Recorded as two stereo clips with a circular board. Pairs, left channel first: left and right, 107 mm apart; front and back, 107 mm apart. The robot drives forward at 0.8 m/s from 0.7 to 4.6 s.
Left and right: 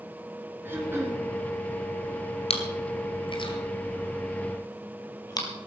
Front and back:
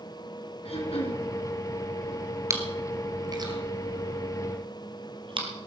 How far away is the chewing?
About 2.5 m.